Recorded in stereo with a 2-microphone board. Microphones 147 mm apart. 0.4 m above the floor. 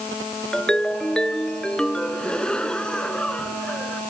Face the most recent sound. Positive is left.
turn(degrees=5)  # may be behind; listen again after turning